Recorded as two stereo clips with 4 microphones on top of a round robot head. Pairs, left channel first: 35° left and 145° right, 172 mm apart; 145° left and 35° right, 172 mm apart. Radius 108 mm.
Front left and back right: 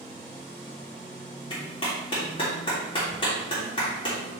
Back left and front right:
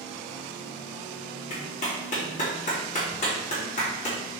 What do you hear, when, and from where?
1.5 s a clap: 100° left, 2.5 m